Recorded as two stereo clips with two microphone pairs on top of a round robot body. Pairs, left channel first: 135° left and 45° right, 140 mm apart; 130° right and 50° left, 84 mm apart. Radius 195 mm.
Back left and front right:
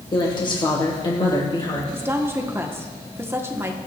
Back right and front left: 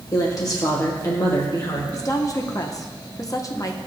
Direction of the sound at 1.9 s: 115° right.